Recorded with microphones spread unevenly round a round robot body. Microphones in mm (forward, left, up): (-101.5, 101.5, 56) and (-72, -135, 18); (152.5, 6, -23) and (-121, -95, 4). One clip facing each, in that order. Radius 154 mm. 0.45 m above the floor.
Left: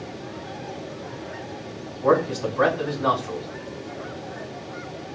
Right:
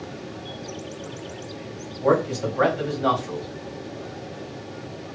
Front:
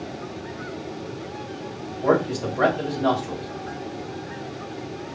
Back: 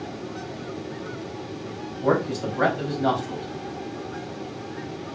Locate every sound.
2.0 s a man speaking: 85° right, 3 m